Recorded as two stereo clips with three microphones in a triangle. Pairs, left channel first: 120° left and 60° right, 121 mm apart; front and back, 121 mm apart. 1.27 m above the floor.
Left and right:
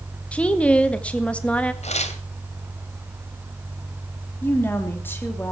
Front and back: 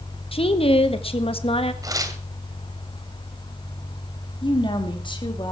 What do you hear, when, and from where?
0.3 s a woman speaking: 40° left, 1.7 m
1.8 s tearing paper: 120° left, 2 m
4.4 s a woman speaking: 50° left, 3.5 m